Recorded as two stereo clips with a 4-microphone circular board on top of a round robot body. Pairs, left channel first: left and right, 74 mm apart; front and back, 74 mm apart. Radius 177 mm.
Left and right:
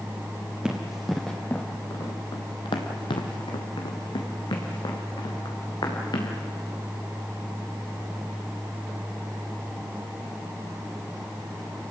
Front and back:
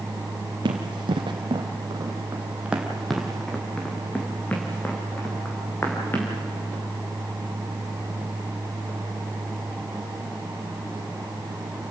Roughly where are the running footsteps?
Behind.